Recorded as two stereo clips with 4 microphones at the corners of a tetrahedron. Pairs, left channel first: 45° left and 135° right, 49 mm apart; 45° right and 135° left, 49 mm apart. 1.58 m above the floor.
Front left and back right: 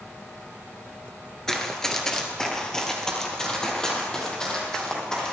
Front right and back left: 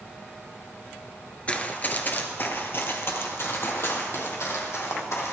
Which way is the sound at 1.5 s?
25° right.